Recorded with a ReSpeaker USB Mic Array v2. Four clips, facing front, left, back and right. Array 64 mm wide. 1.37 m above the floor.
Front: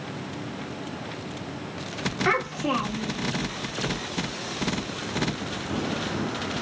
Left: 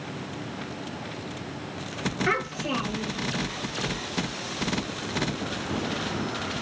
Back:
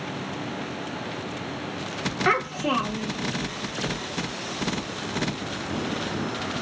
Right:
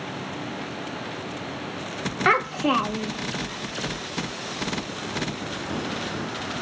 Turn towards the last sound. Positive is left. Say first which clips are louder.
# right 8 dB, back 2 dB
turn(degrees=-95)